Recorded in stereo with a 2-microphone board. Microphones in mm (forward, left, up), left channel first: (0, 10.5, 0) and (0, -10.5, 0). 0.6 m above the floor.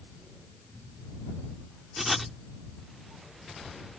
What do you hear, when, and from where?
2.0 s writing: 5° right (ahead or behind)